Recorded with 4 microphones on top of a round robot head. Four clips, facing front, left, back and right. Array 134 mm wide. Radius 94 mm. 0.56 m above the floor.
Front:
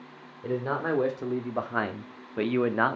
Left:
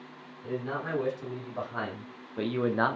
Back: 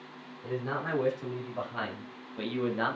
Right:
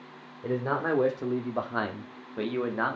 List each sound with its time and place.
0.4 s a man speaking: 55° right, 2 m; by 3.0 s 30° left, 1.2 m